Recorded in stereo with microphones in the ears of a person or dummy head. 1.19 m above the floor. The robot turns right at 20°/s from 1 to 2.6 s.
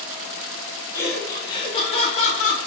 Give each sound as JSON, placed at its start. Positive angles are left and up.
{"t": 0.9, "sound": "laughter", "azimuth_deg": 20, "distance_m": 0.8}